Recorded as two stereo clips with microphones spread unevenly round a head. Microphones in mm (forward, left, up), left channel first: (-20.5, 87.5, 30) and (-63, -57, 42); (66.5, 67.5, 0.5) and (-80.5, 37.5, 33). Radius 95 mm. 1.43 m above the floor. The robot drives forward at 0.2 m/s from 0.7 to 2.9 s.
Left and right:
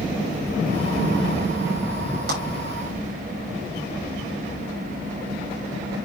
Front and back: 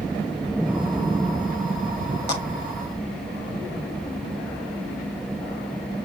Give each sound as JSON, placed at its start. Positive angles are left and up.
{"t": 2.3, "sound": "a clap", "azimuth_deg": -65, "distance_m": 6.5}